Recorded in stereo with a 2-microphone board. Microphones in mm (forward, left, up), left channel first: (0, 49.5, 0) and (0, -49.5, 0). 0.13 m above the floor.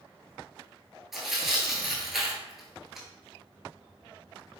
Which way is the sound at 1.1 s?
Centre (ahead or behind).